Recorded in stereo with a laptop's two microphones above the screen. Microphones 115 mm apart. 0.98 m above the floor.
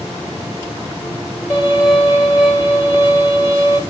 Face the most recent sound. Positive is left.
turn(degrees=35)  # may be behind; listen again after turning